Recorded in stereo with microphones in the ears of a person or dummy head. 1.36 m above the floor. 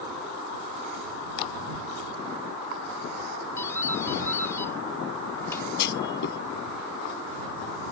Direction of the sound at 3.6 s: 15° left (ahead or behind).